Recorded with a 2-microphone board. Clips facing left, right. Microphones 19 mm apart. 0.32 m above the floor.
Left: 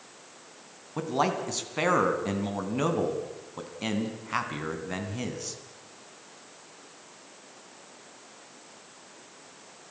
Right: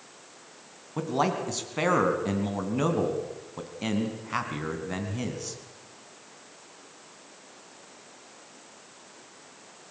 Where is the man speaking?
5° left (ahead or behind), 3.5 m.